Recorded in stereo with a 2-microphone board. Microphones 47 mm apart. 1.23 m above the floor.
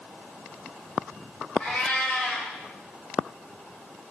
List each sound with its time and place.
1.6 s a cat meowing: 25° left (ahead or behind), 1.8 m